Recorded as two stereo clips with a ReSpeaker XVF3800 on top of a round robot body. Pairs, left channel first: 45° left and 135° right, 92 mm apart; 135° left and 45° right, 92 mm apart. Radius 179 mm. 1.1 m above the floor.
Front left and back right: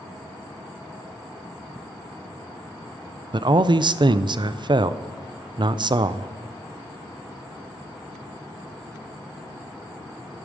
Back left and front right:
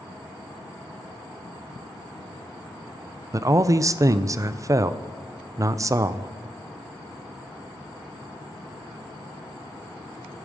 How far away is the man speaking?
About 0.6 m.